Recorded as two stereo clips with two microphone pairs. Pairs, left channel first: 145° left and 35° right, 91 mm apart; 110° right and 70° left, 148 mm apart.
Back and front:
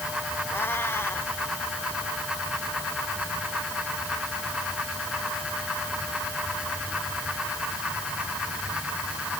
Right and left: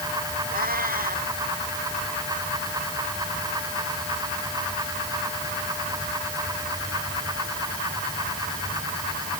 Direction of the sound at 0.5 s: 80° left.